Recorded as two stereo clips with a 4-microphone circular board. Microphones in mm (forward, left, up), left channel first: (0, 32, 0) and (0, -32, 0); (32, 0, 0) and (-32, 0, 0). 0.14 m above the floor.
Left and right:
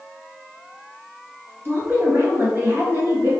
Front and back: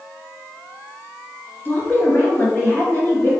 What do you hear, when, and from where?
1.6 s a woman speaking: 50° right, 1.7 m